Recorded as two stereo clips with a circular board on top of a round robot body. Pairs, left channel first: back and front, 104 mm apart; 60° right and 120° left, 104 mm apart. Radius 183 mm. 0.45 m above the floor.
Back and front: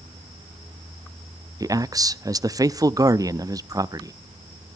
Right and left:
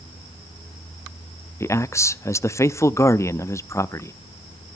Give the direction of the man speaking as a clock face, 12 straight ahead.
1 o'clock.